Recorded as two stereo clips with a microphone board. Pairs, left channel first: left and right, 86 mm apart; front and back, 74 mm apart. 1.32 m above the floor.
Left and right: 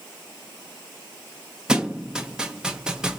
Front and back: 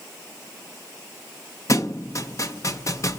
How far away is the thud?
About 0.8 m.